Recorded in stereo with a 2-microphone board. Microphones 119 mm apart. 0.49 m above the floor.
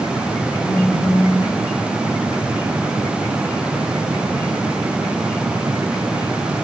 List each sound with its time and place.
0.6 s a phone buzzing: 85° left, 9 m